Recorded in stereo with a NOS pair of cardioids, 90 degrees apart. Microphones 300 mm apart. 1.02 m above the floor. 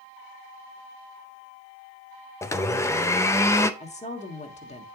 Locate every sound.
2.4 s a blender: 10° left, 0.6 m
3.8 s a woman speaking: 20° left, 1.6 m